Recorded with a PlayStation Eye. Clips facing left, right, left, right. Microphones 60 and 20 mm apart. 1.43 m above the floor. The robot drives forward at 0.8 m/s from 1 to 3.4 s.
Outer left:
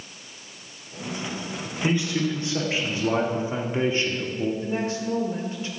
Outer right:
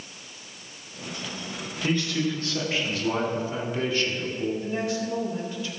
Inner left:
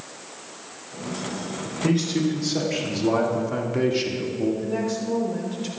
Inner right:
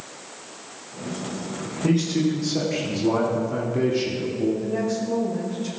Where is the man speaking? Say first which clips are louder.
Outer left 2 dB, inner right 1 dB; 15° left (ahead or behind), 3.5 m; by 4.5 s 25° left (ahead or behind), 2 m.